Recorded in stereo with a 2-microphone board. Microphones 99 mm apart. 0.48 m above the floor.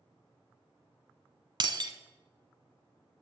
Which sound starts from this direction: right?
Breaking glass, at 1.6 s.